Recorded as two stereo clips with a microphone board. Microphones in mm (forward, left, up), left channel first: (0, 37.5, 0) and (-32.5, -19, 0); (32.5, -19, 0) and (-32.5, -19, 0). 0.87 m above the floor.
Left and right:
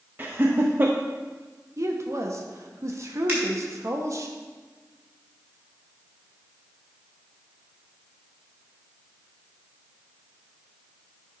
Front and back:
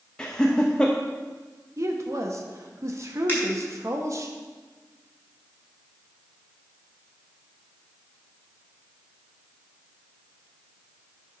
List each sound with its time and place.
0.2 s laughter: 75° right, 0.6 m
1.8 s a woman speaking: 150° right, 1.1 m
3.3 s a finger snap: 65° right, 4 m